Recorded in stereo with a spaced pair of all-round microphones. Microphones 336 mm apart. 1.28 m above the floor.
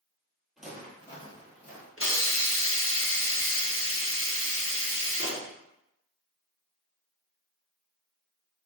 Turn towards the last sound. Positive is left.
turn(degrees=40)  # may be behind; listen again after turning